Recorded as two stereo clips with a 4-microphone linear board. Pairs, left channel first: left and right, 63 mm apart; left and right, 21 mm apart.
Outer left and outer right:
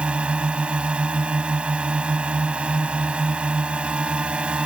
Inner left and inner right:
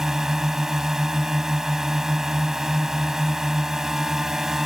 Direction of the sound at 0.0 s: 20° right (ahead or behind).